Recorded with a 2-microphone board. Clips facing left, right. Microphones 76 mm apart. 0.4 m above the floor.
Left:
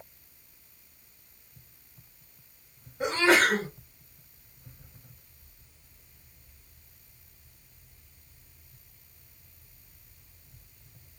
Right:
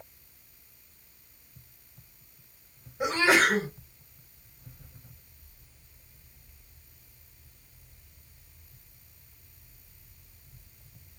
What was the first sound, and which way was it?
A sneeze, 10° right (ahead or behind).